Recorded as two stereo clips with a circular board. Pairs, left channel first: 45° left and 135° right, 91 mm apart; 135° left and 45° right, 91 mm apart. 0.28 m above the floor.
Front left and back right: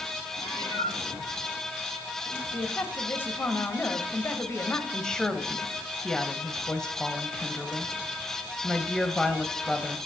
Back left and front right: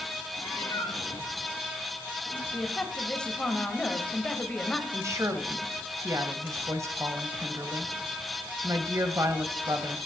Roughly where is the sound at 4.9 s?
Ahead right.